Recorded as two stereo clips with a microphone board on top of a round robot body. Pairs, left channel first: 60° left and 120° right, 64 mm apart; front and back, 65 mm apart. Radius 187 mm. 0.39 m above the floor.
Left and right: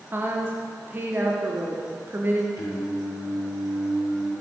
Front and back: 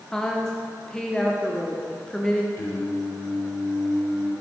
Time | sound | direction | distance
0.1 | a woman speaking | 80° right | 1.3 m
2.6 | singing | 40° left | 4 m